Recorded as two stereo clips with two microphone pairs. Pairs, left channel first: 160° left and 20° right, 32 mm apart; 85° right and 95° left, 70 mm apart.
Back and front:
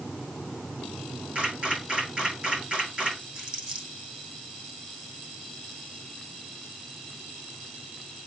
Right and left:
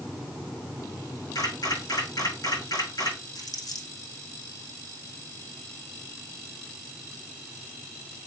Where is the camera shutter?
75° right, 5.5 m.